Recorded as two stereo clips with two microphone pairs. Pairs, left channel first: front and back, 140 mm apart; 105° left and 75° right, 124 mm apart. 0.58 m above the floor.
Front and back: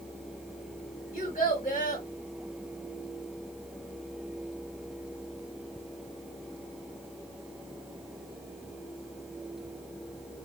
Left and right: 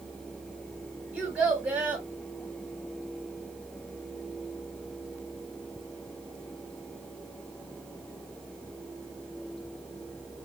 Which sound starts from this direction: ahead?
A child speaking, at 1.1 s.